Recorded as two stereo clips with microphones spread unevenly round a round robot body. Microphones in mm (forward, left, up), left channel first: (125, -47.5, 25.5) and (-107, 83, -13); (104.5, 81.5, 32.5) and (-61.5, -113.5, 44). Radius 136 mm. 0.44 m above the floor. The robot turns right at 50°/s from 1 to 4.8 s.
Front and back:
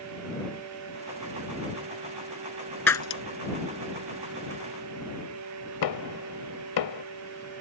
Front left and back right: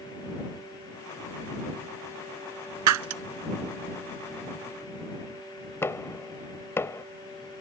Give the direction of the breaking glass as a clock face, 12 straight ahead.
4 o'clock.